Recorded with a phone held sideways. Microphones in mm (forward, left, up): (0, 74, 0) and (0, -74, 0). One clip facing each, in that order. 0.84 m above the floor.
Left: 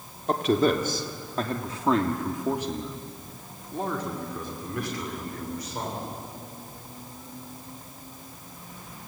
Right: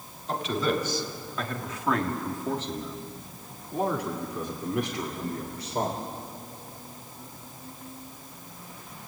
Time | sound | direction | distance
0.3 | a man speaking | 55° left (ahead or behind) | 2.5 m